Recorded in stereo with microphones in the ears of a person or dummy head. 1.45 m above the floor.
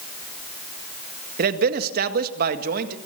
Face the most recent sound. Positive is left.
turn(degrees=-50)  # may be behind; listen again after turning